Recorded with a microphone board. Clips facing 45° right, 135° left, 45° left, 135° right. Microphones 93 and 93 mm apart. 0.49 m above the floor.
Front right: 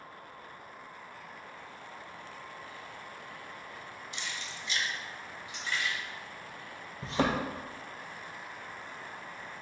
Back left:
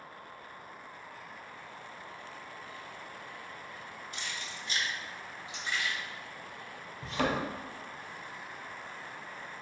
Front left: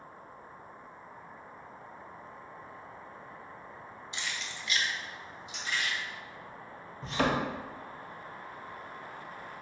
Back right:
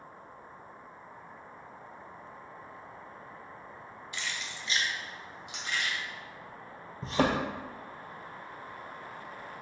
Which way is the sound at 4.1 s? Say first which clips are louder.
Front right 1 dB, even; 105° left.